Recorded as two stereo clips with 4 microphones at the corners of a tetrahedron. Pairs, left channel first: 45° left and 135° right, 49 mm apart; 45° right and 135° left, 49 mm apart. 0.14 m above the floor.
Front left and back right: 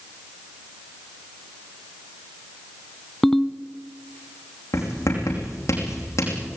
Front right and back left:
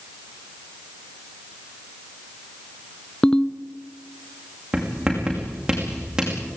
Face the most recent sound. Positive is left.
turn(degrees=60)